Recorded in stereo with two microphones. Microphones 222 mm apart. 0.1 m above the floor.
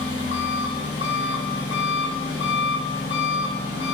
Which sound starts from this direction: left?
An engine running, at 0.0 s.